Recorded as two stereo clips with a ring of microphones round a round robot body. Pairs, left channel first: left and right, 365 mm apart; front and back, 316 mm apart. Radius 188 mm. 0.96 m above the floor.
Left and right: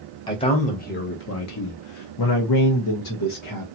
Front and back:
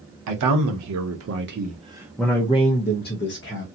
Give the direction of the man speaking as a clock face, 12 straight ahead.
6 o'clock.